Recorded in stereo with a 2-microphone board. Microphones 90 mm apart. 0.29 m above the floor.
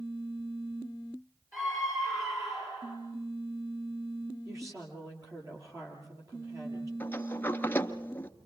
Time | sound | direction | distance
1.5 | a scream | 30° right (ahead or behind) | 4.5 m
4.5 | a woman speaking | 40° right (ahead or behind) | 6.5 m
7.0 | a sliding door | 20° left (ahead or behind) | 1.1 m